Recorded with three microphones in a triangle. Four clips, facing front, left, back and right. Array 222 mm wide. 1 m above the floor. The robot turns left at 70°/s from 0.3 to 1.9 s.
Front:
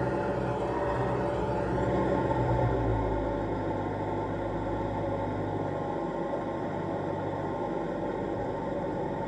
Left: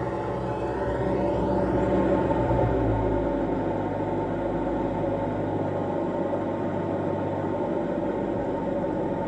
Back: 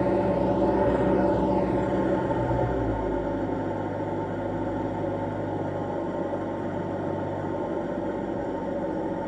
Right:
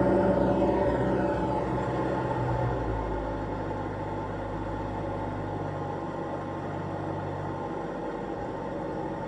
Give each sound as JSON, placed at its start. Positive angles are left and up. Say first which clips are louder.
{"t": 0.0, "sound": "an engine running", "louder": "right 6 dB, back 6 dB", "azimuth_deg": -130, "distance_m": 1.7}